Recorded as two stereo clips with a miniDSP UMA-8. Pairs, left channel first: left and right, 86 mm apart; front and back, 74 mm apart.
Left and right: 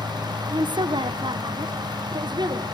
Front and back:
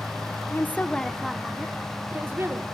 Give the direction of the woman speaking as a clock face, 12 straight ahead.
2 o'clock.